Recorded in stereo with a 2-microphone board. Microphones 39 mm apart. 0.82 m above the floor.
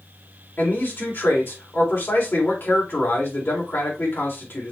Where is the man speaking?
65° left (ahead or behind), 3.5 m.